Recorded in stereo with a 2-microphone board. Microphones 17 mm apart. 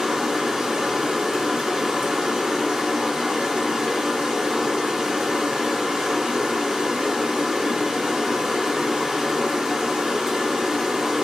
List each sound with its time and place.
0.0 s running water: 55° right (ahead or behind), 1.1 m